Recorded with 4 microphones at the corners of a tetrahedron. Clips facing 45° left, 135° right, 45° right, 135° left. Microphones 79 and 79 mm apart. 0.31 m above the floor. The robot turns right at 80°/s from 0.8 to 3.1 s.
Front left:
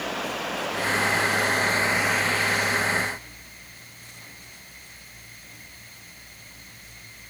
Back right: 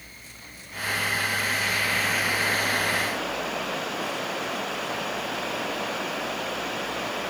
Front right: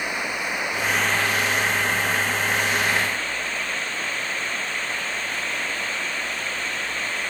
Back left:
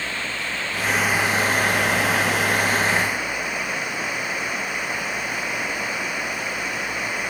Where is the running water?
30° left; by 7.3 s 145° right.